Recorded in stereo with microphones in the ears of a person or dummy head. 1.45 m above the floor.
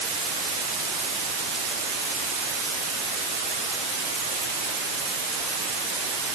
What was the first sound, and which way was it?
Only background noise.